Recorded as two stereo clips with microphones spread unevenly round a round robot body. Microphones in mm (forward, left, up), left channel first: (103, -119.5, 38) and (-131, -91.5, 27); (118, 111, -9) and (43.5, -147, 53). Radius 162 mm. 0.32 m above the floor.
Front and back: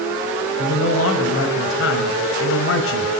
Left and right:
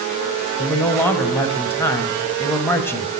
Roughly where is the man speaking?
Ahead.